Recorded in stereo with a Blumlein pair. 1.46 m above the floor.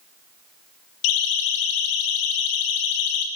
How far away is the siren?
About 3 m.